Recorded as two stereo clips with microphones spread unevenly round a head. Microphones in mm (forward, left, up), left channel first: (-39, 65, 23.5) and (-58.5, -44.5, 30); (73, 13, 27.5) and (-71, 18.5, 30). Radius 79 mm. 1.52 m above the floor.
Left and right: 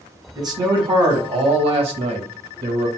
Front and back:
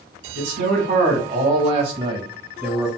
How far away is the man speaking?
About 1.7 m.